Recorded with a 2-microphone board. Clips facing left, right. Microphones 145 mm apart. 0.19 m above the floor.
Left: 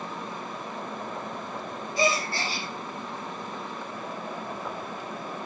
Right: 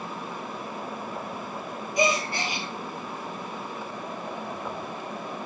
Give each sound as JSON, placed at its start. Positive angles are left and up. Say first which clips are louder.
{"t": 2.0, "sound": "a gasp", "louder": "right 1 dB", "side_deg": -15, "distance_m": 1.9}